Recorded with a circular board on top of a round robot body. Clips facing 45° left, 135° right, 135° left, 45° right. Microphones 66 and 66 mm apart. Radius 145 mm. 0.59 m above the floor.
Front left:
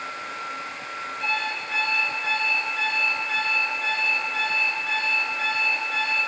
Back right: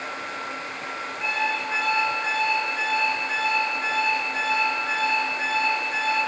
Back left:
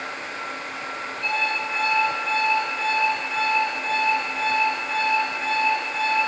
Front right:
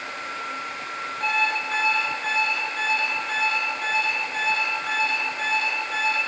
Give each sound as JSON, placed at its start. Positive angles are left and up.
{"t": 1.2, "sound": "an alarm clock", "azimuth_deg": -65, "distance_m": 5.5}